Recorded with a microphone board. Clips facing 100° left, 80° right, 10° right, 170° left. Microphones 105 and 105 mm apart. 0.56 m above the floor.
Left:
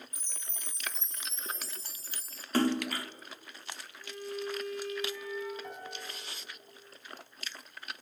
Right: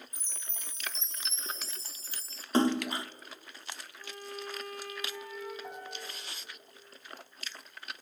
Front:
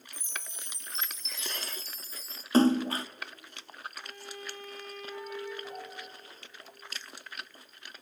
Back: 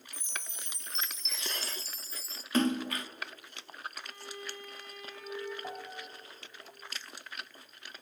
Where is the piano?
160° right, 5.5 m.